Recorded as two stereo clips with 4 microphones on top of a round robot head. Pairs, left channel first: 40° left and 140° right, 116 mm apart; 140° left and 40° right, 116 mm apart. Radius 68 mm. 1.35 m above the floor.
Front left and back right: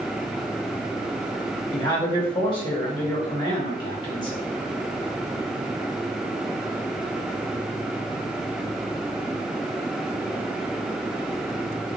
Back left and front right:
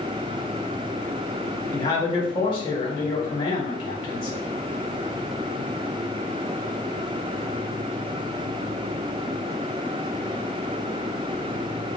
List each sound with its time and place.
1.7 s a man speaking: 90° left, 1.2 m